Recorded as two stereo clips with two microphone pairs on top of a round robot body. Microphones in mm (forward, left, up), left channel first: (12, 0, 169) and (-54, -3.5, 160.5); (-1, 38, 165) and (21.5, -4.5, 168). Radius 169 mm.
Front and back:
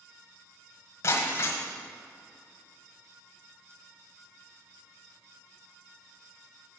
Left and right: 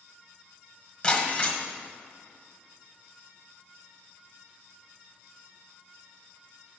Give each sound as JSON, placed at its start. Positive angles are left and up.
{"t": 1.0, "sound": "breaking glass", "azimuth_deg": 55, "distance_m": 1.3}